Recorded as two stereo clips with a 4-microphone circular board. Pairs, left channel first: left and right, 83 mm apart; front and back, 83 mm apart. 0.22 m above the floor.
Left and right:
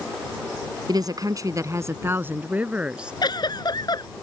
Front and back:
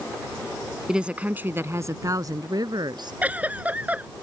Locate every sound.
0.9 s a woman speaking: 100° right; by 3.2 s 165° right
3.2 s a giggle: 110° left